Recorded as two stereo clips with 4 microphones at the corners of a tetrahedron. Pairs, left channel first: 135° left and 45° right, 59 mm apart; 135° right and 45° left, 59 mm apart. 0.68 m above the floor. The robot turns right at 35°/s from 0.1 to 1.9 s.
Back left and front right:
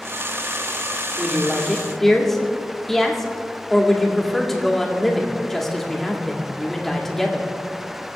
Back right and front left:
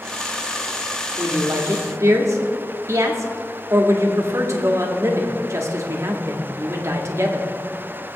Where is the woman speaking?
25° left, 1.8 m; by 7.5 s 50° left, 1.8 m.